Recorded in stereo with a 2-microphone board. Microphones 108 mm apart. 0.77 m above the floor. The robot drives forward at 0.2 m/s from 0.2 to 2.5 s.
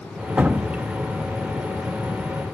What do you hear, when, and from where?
0.4 s dripping: 15° right (ahead or behind)